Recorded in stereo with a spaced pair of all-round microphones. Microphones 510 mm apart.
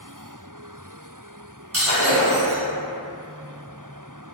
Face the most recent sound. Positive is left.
turn(degrees=-25)  # may be behind; listen again after turning